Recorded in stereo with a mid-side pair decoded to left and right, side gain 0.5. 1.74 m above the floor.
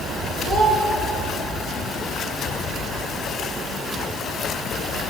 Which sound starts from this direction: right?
A child speaking, at 0.5 s.